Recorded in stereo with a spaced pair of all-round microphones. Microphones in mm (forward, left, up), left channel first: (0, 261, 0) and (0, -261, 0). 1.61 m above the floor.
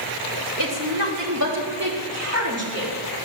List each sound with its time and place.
0.6 s a woman speaking: 35° right (ahead or behind), 3 m; by 2.9 s 25° right (ahead or behind), 4 m